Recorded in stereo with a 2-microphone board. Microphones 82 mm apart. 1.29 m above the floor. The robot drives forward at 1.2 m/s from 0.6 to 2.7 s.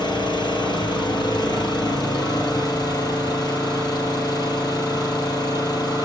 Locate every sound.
0.0 s an engine running: 60° left (ahead or behind), 9 m; by 6.0 s 50° left (ahead or behind), 10 m